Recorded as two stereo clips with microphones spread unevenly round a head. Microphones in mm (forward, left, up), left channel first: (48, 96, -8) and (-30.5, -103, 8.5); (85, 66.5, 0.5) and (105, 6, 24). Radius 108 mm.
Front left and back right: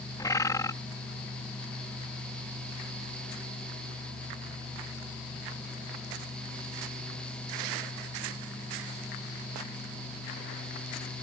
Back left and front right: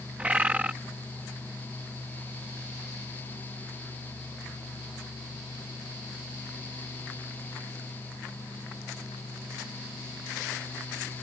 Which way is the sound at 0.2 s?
10° right.